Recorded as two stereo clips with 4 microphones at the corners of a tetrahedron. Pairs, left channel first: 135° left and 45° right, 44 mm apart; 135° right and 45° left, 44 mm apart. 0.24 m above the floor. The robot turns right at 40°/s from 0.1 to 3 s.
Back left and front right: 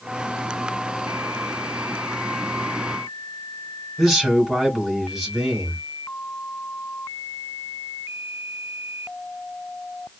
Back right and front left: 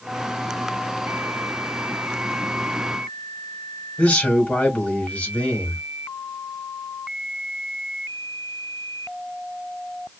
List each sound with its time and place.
4.0 s a man speaking: 125° right, 1.2 m